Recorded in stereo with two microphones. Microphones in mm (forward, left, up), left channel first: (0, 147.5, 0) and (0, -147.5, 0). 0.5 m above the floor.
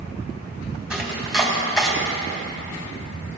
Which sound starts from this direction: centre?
Chopping, at 0.9 s.